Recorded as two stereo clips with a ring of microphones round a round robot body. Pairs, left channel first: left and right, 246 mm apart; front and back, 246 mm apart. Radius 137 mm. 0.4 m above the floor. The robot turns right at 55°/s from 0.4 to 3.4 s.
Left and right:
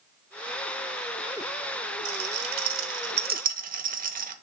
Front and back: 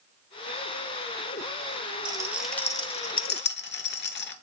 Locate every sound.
2.0 s a rattle: 110° right, 1.0 m; by 4.3 s 40° right, 1.0 m